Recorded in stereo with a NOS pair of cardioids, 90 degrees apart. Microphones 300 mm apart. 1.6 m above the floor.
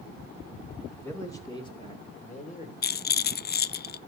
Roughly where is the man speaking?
Ahead.